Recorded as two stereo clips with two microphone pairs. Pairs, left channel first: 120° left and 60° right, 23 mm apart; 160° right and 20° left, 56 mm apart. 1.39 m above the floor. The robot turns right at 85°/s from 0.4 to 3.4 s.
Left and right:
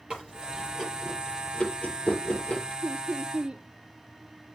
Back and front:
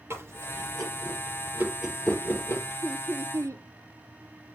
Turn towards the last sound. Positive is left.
turn(degrees=-15)